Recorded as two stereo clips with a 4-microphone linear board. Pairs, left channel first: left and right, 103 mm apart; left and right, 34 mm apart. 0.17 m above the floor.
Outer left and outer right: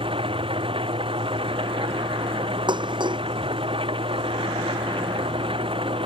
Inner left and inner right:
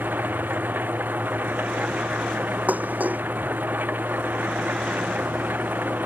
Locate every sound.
0.0 s an engine running: 60° right (ahead or behind)
2.7 s dishes clattering: 50° right (ahead or behind)